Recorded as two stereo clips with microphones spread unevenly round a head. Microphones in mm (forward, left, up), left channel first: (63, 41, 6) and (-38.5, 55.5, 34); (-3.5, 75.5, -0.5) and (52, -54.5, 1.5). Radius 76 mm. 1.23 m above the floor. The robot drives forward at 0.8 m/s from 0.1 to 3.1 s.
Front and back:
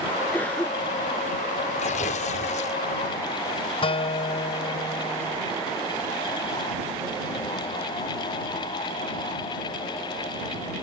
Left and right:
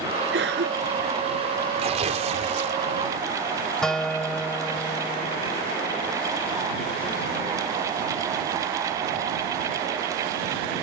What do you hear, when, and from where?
0.3 s a cough: 90° right
1.8 s tearing paper: 25° right; by 2.8 s 30° right
3.8 s a guitar: 25° left